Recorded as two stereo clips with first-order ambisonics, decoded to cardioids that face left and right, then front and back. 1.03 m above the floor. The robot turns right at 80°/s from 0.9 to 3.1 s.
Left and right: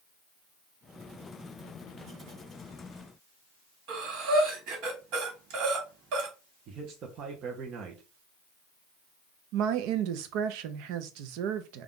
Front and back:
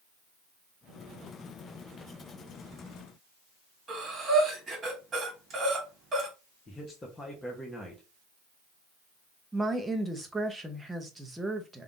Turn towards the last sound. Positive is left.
turn(degrees=-95)